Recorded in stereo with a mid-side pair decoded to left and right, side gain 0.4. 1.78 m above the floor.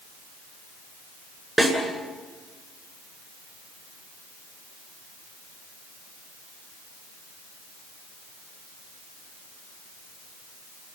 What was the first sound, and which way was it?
A snare drum, 10° right.